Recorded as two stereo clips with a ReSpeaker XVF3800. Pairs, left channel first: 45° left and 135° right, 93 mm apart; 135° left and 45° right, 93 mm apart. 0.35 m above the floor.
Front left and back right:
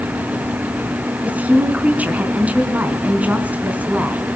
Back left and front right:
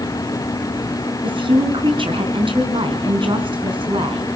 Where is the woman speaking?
65° right, 4 m.